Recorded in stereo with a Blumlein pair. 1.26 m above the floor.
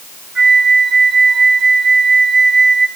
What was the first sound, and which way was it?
A flute, 20° right.